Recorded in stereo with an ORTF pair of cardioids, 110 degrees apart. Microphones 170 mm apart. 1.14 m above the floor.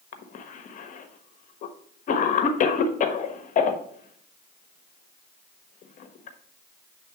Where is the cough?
50° left, 1.1 m.